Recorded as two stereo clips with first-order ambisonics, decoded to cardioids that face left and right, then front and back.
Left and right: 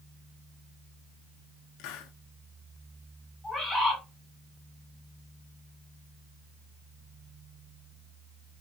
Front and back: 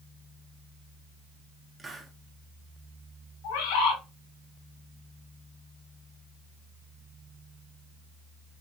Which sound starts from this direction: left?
A hiss, at 1.8 s.